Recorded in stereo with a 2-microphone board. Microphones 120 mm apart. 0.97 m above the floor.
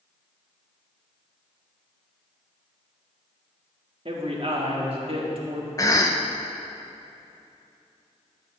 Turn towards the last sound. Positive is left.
turn(degrees=30)  # may be behind; listen again after turning